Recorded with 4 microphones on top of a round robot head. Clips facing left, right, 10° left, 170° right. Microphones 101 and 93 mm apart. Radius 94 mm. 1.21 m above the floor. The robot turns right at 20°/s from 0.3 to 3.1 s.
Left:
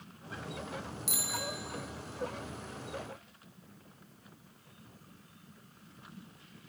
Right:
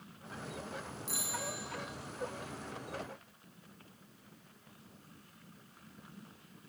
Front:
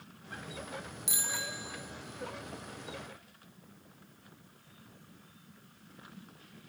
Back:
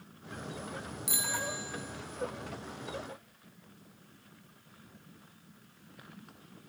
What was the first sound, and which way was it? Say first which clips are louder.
A bicycle bell: left 2 dB, back 4 dB; 75° left.